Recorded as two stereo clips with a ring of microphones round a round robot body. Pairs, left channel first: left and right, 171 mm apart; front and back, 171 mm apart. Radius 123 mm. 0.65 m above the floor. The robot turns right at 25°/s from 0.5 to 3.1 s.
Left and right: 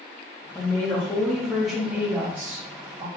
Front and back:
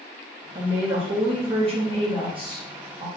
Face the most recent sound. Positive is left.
turn(degrees=-140)